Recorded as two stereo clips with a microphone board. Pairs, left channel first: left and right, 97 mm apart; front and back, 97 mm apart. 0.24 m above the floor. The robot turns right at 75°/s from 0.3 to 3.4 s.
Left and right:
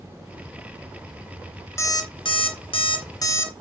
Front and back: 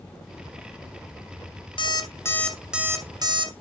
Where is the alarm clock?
30° left, 1.2 m; by 3.5 s 150° left, 1.2 m.